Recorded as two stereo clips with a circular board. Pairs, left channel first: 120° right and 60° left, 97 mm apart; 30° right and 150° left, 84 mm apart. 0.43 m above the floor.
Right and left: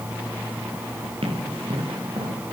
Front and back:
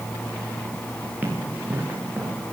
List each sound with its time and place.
1.2 s running footsteps: 80° left, 7 m; by 2.5 s 85° left, 5.5 m